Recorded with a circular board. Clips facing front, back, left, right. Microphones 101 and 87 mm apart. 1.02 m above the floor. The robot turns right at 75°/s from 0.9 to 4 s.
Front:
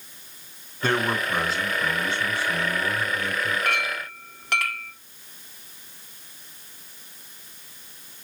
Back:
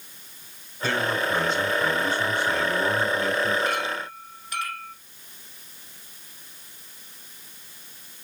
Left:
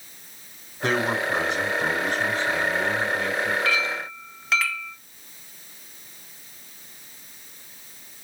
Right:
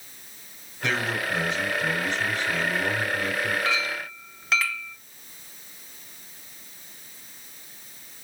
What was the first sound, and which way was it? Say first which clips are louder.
A man speaking: front 1 dB, left 4 dB; 40° left.